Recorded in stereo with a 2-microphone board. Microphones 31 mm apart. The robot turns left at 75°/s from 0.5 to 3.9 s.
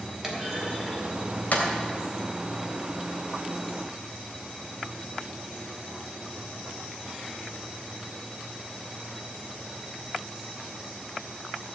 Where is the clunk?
15° right (ahead or behind), 3 m; by 1.7 s 65° left (ahead or behind), 3 m.